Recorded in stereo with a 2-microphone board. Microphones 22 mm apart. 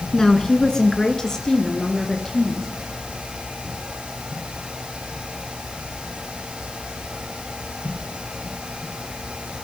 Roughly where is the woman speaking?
Left.